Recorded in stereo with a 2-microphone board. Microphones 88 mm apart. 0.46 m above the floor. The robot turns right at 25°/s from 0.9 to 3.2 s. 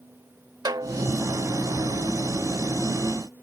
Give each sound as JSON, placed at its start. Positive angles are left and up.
{"t": 0.7, "sound": "a snare drum", "side_deg": -55}